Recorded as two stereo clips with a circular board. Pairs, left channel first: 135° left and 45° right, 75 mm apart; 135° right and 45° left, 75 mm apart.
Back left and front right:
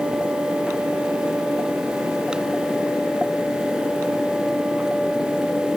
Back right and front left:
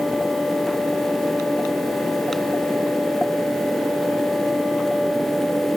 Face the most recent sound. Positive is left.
No sound to turn to.